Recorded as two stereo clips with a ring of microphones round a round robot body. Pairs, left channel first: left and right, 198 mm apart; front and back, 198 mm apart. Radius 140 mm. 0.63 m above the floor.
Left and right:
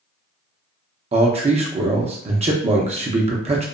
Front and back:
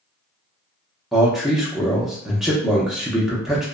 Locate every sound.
1.1 s a man speaking: 95° right, 0.6 m